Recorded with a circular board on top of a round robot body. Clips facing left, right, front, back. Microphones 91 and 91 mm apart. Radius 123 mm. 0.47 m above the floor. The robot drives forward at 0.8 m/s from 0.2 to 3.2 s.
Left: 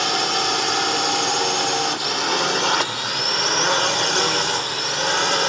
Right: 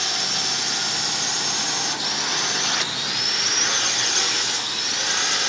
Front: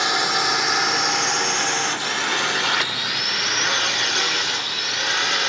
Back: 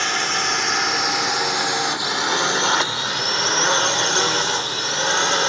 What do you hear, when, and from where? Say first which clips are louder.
0.0 s a drone: left 8 dB, front 1 dB; 75° left; by 5.5 s 125° left